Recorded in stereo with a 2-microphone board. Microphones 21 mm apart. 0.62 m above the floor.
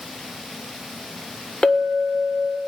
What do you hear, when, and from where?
1.6 s a clink: 65° left (ahead or behind), 1.5 m